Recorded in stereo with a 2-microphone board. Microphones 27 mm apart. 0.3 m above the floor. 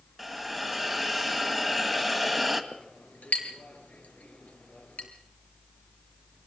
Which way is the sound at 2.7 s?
65° left (ahead or behind).